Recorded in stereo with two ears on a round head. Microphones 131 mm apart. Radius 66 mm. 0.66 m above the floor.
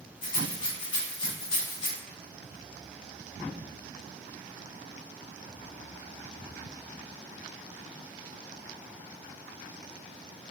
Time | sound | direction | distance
0.2 | a rattle | 35° left (ahead or behind) | 1.2 m